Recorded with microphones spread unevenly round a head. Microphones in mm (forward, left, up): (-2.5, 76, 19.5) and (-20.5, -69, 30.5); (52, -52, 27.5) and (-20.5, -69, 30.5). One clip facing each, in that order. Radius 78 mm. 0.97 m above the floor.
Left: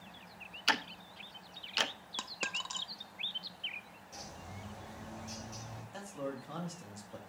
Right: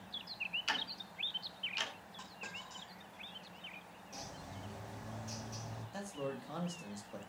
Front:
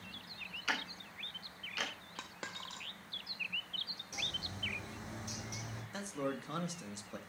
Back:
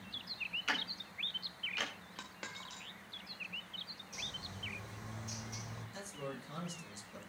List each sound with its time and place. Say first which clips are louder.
0.7 s ticking: left 7 dB, front 1 dB; 100° left, 0.7 m
2.2 s a dropped coin: left 7 dB, front 2 dB; 90° left, 0.7 m
4.1 s a bird: even, front 4 dB; 10° right, 4.5 m
5.9 s a man speaking: left 1 dB, front 7 dB; 10° right, 1.8 m